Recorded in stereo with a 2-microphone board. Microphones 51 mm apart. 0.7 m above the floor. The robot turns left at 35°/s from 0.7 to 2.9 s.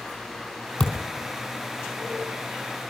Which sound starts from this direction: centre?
A thud, at 0.8 s.